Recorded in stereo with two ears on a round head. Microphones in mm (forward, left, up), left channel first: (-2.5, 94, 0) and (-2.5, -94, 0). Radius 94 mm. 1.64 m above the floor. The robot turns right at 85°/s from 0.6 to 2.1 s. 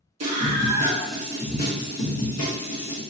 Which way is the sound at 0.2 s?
30° right.